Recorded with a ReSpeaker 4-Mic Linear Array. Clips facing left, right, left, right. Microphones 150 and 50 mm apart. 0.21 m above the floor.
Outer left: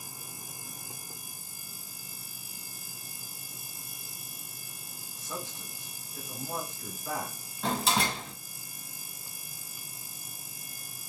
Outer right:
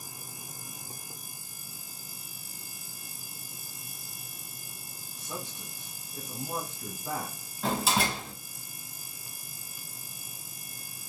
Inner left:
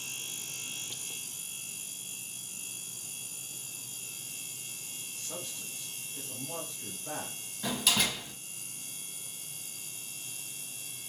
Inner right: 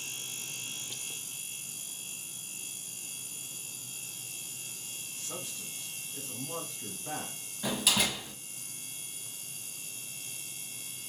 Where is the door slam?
5° right (ahead or behind), 0.7 m.